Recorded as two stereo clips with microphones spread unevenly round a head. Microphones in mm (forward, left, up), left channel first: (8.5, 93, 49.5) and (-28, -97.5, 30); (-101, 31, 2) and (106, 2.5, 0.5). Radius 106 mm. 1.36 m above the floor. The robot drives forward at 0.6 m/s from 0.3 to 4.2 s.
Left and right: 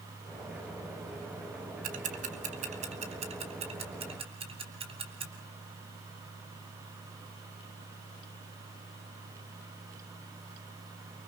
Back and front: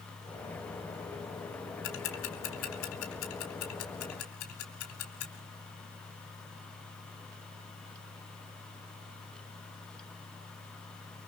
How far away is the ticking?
About 2.0 m.